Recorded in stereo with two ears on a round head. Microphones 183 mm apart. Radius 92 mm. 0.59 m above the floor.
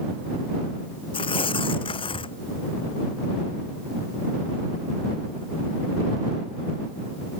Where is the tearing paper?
25° left (ahead or behind).